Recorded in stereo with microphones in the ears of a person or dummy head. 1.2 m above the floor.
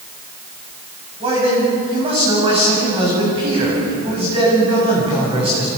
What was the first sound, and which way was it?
A man speaking, 30° right (ahead or behind).